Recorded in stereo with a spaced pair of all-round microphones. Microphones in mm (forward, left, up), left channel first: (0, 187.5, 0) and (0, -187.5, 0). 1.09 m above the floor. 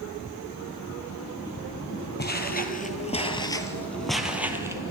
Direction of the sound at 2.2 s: 25° left (ahead or behind).